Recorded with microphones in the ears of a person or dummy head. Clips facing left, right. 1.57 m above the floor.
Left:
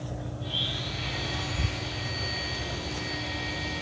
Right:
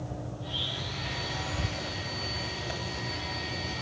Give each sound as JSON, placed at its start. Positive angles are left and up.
{"t": 0.4, "sound": "a blender", "side_deg": 40, "distance_m": 4.0}